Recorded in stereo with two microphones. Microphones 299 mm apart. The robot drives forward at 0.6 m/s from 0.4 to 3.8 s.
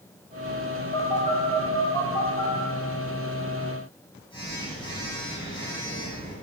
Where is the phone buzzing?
20° left (ahead or behind), 5 m; by 6.3 s 15° left (ahead or behind), 6.5 m.